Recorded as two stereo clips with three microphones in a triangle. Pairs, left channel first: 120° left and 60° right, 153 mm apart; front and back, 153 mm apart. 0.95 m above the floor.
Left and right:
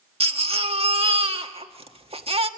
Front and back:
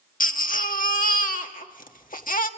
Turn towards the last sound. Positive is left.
turn(degrees=-15)